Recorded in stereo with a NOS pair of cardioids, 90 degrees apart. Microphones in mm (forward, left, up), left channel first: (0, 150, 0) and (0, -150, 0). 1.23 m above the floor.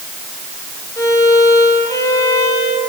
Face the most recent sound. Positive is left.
turn(degrees=10)